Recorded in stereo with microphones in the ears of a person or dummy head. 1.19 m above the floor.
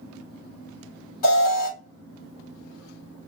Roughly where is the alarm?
Left.